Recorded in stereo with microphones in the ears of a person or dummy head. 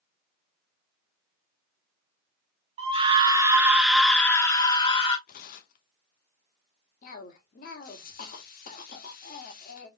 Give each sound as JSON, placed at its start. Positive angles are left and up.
{"t": 2.8, "sound": "a scream", "side_deg": -35, "distance_m": 1.0}
{"t": 5.3, "sound": "tearing paper", "side_deg": 55, "distance_m": 0.6}
{"t": 7.0, "sound": "a cough", "side_deg": 50, "distance_m": 1.0}